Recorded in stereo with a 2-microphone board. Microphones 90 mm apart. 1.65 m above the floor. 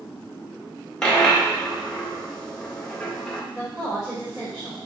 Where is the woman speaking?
Centre (ahead or behind), 2.5 m.